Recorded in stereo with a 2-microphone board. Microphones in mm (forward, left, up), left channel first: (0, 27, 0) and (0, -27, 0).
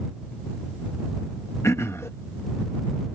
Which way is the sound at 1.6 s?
55° left (ahead or behind).